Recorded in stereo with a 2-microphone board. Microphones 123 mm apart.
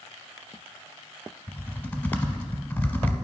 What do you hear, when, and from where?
1.5 s typing on a keyboard: 15° left (ahead or behind), 0.6 m